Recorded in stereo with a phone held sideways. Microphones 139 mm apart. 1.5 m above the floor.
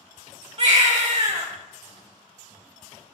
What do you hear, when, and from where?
0.6 s a baby crying: 50° right (ahead or behind), 1.4 m